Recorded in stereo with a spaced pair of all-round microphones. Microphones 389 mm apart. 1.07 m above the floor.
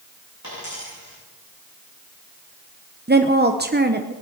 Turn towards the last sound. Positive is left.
turn(degrees=-25)  # may be behind; listen again after turning